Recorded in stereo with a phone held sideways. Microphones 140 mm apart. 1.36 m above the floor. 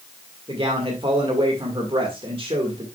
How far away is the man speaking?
About 1.9 m.